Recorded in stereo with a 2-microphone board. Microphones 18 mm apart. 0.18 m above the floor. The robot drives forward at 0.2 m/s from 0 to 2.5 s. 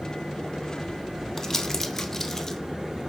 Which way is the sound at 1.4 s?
20° left (ahead or behind).